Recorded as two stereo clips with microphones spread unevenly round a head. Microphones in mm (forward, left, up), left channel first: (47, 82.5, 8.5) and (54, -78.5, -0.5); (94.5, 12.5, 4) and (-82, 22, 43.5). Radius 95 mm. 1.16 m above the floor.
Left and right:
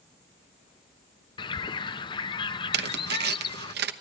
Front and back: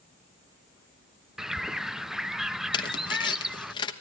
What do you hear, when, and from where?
1.4 s a bird: 65° left, 0.5 m
2.7 s tearing paper: 70° right, 1.0 m